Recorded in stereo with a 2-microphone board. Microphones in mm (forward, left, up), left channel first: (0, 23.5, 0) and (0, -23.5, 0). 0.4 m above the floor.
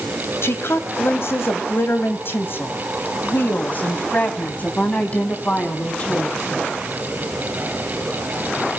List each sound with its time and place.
0.4 s a woman speaking: 65° left (ahead or behind), 2.5 m; by 6.4 s 25° left (ahead or behind), 4 m